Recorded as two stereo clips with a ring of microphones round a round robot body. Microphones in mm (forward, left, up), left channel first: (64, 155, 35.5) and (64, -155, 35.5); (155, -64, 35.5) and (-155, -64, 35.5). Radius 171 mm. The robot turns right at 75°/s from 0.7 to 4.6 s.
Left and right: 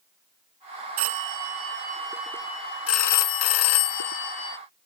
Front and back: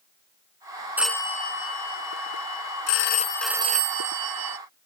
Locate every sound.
1.0 s a phone ringing: 95° right; by 4.6 s 175° left